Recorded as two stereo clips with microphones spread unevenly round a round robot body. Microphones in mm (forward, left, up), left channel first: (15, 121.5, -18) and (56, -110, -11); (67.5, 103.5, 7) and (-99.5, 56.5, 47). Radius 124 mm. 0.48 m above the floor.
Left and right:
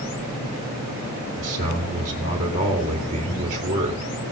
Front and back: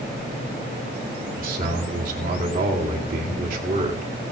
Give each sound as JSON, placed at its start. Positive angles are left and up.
{"t": 1.4, "sound": "a man speaking", "azimuth_deg": -130, "distance_m": 1.8}